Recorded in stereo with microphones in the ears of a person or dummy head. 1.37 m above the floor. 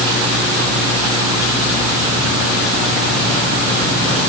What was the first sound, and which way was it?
Only background noise.